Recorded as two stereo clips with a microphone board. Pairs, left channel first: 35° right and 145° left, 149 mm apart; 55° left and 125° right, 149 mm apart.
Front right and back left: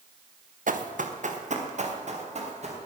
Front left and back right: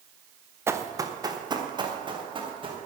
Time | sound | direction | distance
0.7 | running footsteps | 165° left | 1.4 m